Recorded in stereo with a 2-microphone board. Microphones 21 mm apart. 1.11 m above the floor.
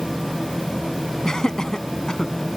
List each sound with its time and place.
1.2 s laughter: 30° left (ahead or behind)